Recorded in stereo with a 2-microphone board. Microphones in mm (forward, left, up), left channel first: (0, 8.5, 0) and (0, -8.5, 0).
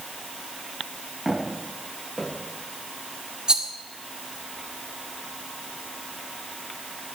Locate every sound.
1.2 s footsteps: 10° right (ahead or behind), 9 m; by 2.3 s 15° right (ahead or behind), 9 m
3.5 s a rattle: 50° right (ahead or behind), 1.9 m